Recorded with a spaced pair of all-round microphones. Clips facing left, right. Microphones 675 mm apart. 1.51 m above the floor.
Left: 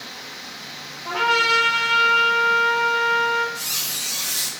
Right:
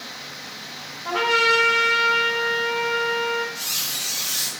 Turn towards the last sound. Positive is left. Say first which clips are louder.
# left 1 dB
turn(degrees=70)  # may be behind; listen again after turning